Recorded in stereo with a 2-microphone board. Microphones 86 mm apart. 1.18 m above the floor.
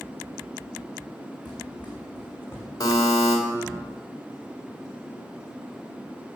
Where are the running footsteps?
20° left (ahead or behind), 3.5 m; by 2.7 s 30° left (ahead or behind), 2.5 m.